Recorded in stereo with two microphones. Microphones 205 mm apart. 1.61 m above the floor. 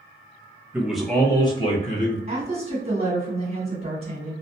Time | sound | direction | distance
0.7 | a man speaking | 10° right (ahead or behind) | 0.8 m
2.3 | a woman speaking | 30° right (ahead or behind) | 1.4 m